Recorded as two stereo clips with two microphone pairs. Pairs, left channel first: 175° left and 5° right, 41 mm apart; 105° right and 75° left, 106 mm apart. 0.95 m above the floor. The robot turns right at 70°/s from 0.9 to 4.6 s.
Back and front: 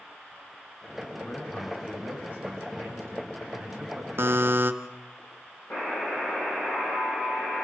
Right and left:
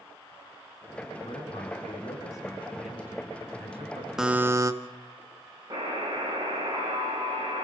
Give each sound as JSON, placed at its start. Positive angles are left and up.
{"t": 1.2, "sound": "a man speaking", "azimuth_deg": -125, "distance_m": 8.5}
{"t": 4.2, "sound": "a buzzer", "azimuth_deg": -10, "distance_m": 1.4}
{"t": 5.7, "sound": "a buzzer", "azimuth_deg": 130, "distance_m": 9.0}